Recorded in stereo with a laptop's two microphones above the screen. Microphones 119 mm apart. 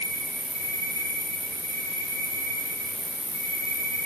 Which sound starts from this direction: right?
An insect, at 0.0 s.